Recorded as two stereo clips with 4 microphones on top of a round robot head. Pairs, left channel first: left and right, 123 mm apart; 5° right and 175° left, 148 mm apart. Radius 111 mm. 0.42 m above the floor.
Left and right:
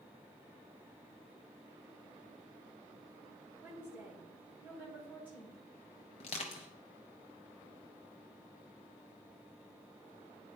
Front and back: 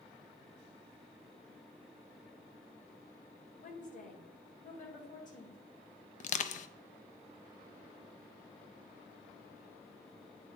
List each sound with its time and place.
3.6 s a woman speaking: 15° right, 2 m
6.2 s crushing: 35° left, 0.5 m